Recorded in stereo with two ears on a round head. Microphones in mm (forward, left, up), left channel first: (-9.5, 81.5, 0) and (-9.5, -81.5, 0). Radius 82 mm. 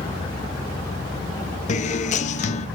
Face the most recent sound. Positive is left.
turn(degrees=40)  # may be behind; listen again after turning